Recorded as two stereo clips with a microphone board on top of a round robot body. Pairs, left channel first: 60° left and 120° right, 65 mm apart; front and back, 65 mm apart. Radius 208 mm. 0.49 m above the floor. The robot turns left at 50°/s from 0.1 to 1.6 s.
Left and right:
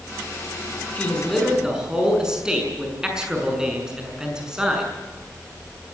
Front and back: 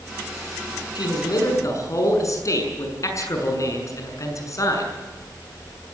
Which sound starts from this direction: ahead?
A man speaking, at 0.9 s.